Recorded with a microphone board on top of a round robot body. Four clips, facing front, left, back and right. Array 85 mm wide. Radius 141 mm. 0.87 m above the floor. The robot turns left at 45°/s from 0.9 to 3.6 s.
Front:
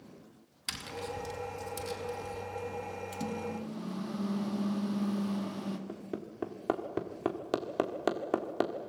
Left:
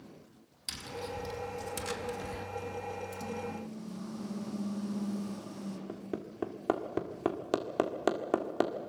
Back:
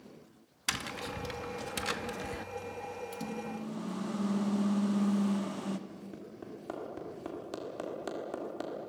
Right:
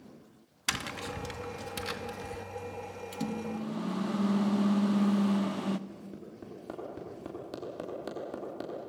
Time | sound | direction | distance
0.7 | tapping | 120° right | 0.9 m
3.1 | a microwave | 80° right | 1.0 m
5.9 | hammering | 50° left | 1.8 m